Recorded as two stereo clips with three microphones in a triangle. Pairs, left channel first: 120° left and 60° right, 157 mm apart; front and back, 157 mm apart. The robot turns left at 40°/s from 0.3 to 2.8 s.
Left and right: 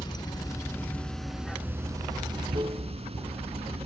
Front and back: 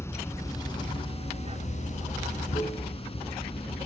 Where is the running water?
70° left, 0.8 m; by 3.9 s 30° right, 0.8 m.